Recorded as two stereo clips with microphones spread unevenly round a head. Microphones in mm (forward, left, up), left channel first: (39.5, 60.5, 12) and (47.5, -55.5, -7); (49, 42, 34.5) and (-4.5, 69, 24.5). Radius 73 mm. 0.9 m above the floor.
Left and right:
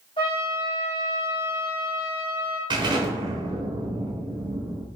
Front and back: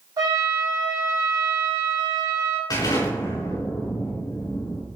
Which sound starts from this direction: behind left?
A trumpet, at 0.2 s.